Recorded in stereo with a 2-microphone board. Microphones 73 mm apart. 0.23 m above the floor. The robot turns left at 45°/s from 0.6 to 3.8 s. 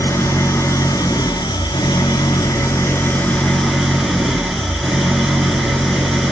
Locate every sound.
0.0 s an engine running: 145° left, 1.9 m; by 6.3 s straight ahead, 1.9 m